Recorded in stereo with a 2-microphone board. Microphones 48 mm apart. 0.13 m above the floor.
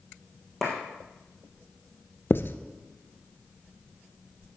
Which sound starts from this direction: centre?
A clap, at 0.6 s.